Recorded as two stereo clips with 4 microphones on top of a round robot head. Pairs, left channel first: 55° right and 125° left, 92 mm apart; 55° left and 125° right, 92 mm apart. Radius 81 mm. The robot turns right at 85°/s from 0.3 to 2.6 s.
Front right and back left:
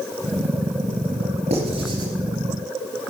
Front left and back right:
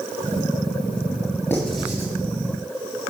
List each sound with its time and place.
1.5 s writing: 125° left, 4 m; by 2.1 s 175° left, 4 m